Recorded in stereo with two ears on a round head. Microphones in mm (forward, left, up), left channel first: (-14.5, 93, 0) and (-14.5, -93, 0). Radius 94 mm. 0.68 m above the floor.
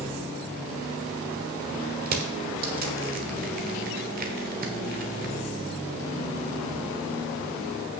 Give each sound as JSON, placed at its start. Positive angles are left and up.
{"t": 2.1, "sound": "crushing", "side_deg": -45, "distance_m": 1.3}